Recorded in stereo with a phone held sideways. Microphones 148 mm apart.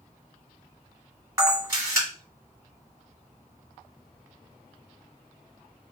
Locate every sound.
1.4 s a camera shutter: 20° right (ahead or behind), 1.4 m